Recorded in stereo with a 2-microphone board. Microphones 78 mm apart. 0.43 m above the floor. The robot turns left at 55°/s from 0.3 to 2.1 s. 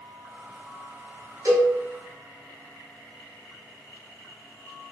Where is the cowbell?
50° right (ahead or behind), 1.7 m; by 1.7 s 40° right (ahead or behind), 1.7 m.